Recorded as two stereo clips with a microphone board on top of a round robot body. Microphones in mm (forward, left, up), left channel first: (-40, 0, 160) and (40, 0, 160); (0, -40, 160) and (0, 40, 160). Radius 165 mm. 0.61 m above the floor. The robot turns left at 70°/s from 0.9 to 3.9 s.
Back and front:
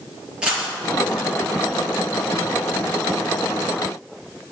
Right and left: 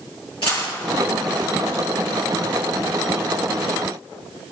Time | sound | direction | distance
0.4 | a dropped coin | 80° right | 5.5 m